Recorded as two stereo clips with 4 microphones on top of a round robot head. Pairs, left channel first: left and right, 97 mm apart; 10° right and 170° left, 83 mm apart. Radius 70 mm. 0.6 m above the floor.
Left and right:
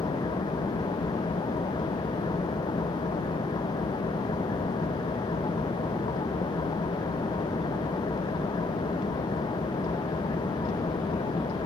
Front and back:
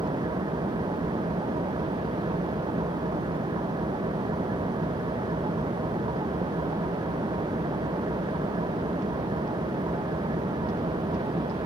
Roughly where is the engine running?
Behind left.